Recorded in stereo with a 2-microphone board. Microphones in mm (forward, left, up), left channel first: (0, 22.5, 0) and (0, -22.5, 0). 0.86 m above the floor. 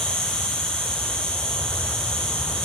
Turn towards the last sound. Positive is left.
turn(degrees=15)  # may be behind; listen again after turning